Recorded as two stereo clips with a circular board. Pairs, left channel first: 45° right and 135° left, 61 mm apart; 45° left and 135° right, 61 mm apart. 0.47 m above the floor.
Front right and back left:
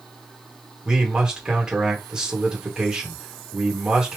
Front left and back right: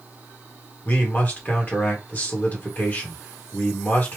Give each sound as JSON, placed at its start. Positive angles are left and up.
{"t": 0.8, "sound": "a man speaking", "azimuth_deg": 70, "distance_m": 1.4}